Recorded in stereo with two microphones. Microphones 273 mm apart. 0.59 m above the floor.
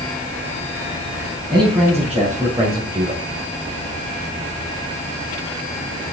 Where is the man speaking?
Centre (ahead or behind), 4 m; by 3.2 s 30° right (ahead or behind), 2 m.